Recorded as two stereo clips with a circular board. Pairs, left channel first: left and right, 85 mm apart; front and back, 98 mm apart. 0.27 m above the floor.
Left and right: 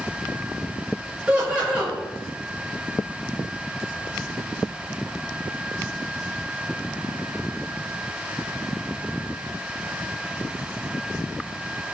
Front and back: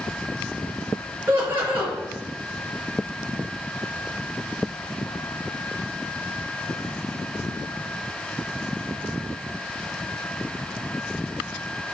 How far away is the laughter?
About 1.0 m.